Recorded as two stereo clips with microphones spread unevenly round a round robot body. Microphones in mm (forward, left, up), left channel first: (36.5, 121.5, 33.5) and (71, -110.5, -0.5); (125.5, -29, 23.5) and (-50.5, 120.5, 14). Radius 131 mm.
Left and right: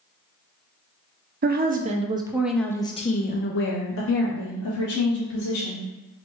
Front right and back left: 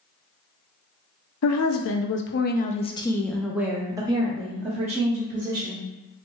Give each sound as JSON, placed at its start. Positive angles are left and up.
{"t": 1.4, "sound": "a woman speaking", "azimuth_deg": -45, "distance_m": 0.9}